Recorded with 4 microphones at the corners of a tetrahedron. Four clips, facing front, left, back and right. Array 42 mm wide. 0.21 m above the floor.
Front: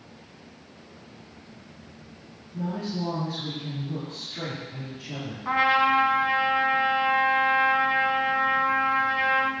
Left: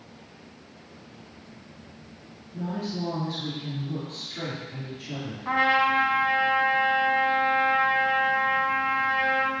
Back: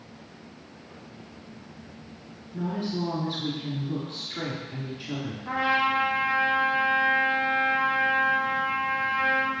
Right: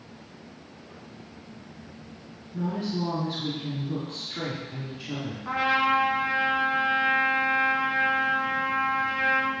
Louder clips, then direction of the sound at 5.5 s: Left 2 dB, front 4 dB; 10° left.